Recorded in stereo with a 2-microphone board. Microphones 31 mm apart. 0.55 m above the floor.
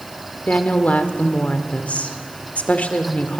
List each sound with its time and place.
0.5 s a woman speaking: 55° left (ahead or behind), 1.9 m